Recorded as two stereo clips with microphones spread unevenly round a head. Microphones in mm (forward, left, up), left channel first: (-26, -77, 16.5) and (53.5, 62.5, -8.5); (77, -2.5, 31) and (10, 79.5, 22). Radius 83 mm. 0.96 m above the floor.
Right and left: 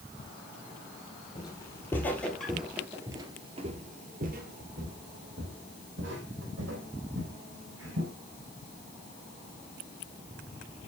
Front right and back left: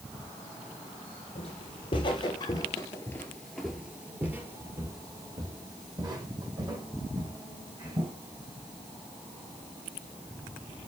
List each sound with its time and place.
1.4 s footsteps: 65° right, 1.5 m; by 8.1 s 85° left, 3 m